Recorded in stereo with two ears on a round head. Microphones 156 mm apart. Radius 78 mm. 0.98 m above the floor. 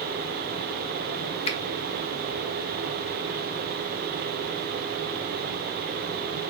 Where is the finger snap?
35° left (ahead or behind), 0.6 m.